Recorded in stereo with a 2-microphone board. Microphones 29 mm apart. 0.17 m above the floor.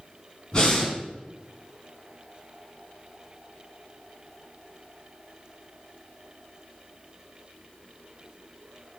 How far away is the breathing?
About 1.0 m.